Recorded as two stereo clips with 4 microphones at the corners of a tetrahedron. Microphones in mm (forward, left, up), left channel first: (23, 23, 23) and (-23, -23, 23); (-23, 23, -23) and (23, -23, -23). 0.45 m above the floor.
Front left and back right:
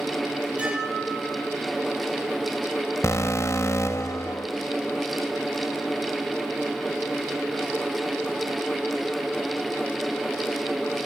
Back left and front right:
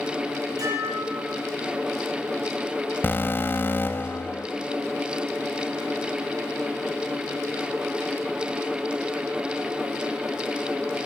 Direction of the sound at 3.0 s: 80° left.